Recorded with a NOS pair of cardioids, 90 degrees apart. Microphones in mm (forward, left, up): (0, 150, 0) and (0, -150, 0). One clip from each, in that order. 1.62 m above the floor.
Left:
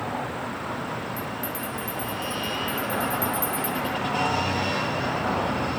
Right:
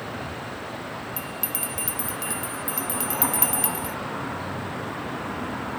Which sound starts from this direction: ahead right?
A bell, at 1.2 s.